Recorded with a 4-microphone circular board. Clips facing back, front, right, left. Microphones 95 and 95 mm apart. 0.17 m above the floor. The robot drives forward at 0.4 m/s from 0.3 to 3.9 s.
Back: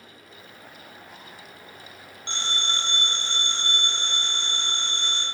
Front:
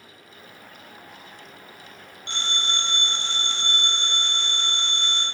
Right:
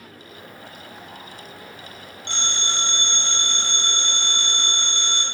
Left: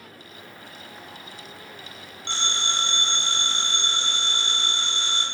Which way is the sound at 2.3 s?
135° left.